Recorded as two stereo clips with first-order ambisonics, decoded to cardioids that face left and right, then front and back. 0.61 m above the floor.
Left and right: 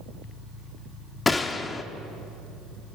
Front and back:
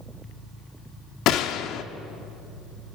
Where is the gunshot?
15° left, 1.0 m.